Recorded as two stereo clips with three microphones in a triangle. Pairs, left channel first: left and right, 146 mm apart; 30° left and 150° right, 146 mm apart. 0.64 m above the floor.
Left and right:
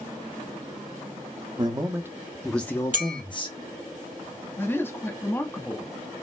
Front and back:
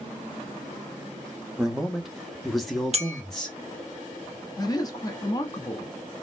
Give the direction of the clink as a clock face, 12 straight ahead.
4 o'clock.